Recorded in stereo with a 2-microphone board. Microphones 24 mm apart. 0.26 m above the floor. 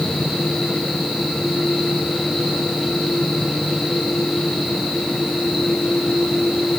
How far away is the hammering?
No hammering in this recording.